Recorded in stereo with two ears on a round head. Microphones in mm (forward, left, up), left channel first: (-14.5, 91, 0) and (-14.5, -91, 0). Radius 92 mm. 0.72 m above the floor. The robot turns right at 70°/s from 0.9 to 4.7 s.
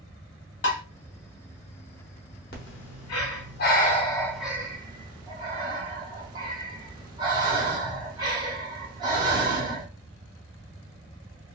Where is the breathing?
50° left (ahead or behind), 0.8 m; by 9.9 s 20° right (ahead or behind), 0.8 m.